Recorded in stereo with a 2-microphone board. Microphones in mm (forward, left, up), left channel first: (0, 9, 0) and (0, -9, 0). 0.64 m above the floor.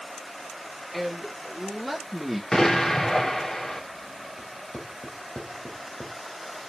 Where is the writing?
75° left (ahead or behind), 3 m.